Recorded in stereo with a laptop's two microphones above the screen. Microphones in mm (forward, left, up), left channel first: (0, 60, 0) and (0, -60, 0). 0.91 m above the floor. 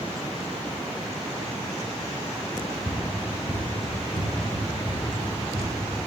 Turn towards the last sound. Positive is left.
turn(degrees=55)  # may be behind; listen again after turning